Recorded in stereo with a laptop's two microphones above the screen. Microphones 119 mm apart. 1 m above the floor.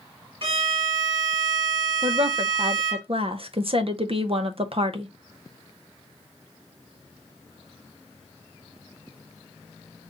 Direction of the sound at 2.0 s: 50° right (ahead or behind).